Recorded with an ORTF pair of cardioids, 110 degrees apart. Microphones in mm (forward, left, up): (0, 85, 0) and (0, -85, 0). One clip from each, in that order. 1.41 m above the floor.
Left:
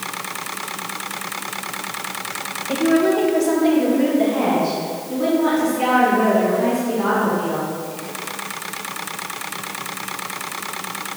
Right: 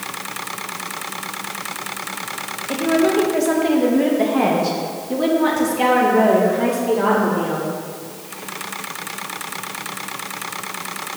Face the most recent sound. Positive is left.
turn(degrees=-65)